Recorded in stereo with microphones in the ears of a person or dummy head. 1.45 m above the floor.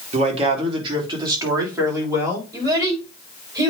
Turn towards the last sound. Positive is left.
turn(degrees=-20)  # may be behind; listen again after turning